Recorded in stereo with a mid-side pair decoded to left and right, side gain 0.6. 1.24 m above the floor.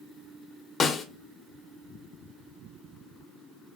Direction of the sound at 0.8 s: 35° left.